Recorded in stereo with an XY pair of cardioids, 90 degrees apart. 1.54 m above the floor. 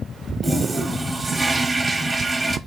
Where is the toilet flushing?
30° right, 0.9 m.